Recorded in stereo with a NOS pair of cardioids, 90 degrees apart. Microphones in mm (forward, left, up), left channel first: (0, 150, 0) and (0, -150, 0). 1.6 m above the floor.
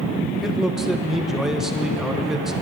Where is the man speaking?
Straight ahead, 1.2 m.